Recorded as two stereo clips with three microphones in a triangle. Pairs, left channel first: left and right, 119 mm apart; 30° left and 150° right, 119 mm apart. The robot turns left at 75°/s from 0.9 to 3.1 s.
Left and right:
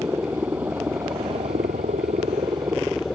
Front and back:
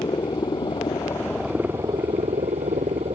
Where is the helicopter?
20° right; by 3.2 s 175° left.